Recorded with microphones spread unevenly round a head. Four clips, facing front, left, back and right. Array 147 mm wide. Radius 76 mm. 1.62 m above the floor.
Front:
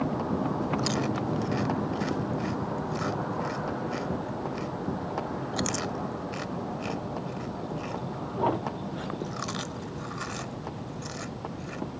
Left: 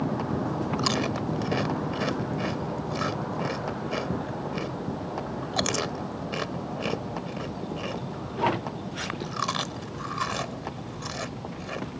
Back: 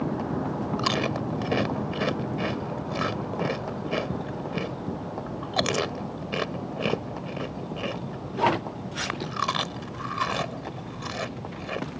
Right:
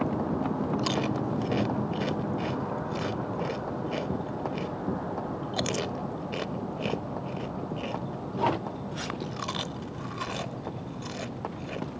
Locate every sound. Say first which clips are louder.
0.8 s chewing: left 1 dB, back 2 dB; 170° left